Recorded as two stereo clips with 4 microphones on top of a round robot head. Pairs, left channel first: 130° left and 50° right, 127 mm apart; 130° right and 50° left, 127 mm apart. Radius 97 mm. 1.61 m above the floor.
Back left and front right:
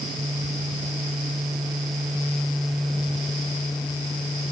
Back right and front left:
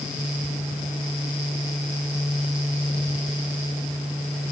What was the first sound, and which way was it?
Only background noise.